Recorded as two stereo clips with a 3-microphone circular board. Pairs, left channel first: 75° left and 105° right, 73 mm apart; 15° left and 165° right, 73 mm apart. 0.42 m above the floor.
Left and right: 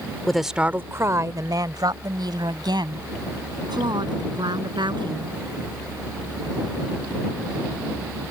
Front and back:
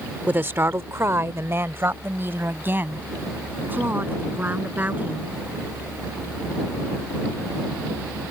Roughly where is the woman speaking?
Behind left.